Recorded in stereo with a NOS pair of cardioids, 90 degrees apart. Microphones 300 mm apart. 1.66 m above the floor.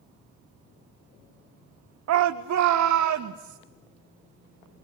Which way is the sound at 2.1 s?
60° right.